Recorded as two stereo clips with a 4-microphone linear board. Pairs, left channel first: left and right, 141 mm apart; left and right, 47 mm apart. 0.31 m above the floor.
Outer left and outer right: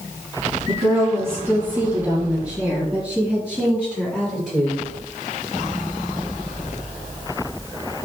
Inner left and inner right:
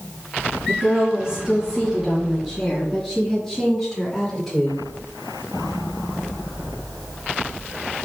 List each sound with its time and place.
0.7 s a woman speaking: 25° right (ahead or behind), 3 m; by 4.8 s 5° right (ahead or behind), 7.5 m